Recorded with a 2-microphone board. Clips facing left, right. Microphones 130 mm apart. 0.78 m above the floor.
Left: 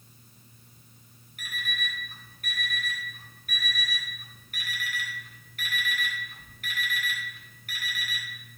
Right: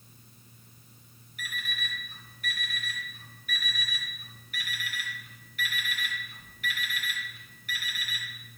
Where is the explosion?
I don't hear an explosion.